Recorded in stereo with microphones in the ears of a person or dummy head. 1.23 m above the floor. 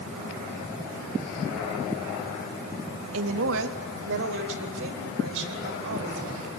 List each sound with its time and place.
3.1 s a woman speaking: 80° right, 1.2 m; by 6.5 s 70° right (ahead or behind), 6 m